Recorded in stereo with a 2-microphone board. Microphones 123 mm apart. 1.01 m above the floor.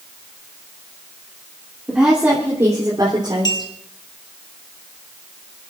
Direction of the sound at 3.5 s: 35° left (ahead or behind).